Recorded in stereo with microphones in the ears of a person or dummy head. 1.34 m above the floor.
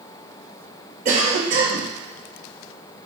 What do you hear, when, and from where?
1.1 s a cough: 40° right (ahead or behind), 0.8 m